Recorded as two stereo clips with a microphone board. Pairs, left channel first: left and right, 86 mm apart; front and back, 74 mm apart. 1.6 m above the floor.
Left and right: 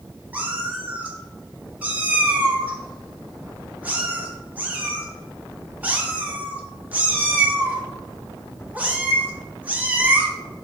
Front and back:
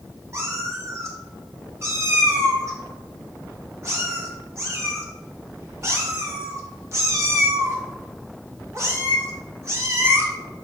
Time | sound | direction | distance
0.3 | a cat meowing | 155° right | 1.3 m